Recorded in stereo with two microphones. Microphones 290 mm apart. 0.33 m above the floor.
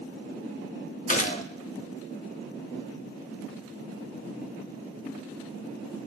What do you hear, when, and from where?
1.1 s a gunshot: 25° left (ahead or behind), 0.8 m